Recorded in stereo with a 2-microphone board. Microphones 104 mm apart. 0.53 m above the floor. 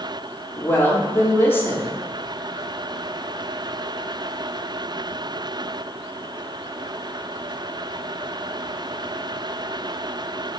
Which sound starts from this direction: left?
A woman speaking, at 0.6 s.